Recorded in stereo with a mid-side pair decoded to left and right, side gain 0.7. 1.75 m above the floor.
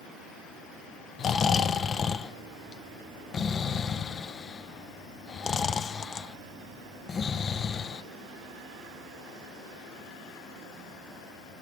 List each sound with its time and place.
1.2 s snoring: 35° left, 0.6 m